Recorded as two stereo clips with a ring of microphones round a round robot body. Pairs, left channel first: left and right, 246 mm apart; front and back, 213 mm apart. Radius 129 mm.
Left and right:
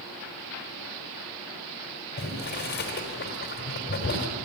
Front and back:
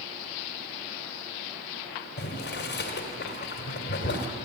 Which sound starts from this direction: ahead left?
Boiling, at 2.2 s.